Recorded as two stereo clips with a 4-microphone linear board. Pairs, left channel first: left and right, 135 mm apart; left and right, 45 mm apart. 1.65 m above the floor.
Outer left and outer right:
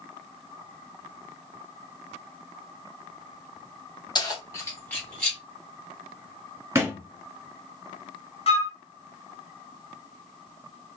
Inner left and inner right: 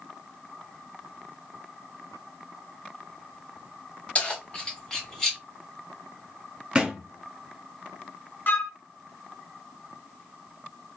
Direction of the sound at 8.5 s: 45° left (ahead or behind).